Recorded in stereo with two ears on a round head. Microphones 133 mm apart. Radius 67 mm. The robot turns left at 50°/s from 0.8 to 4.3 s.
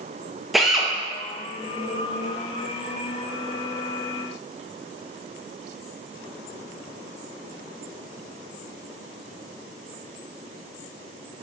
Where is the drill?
Centre (ahead or behind), 0.6 m.